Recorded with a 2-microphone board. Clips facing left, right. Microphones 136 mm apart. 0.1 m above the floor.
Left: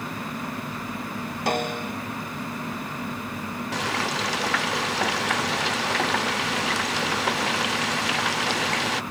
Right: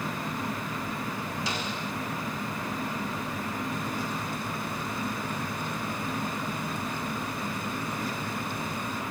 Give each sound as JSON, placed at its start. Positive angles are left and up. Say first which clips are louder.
{"t": 1.5, "sound": "a snare drum", "louder": "left 7 dB", "side_deg": 55}
{"t": 3.7, "sound": "frying", "louder": "left 4 dB", "side_deg": 85}